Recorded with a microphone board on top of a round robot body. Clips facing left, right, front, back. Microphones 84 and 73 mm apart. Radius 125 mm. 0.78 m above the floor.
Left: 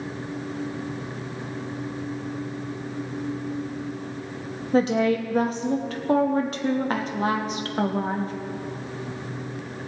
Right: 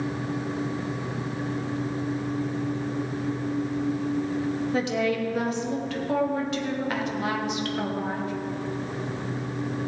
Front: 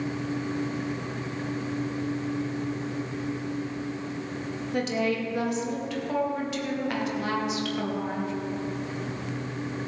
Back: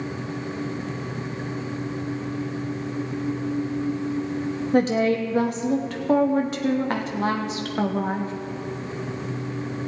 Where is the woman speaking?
140° left, 1.1 m.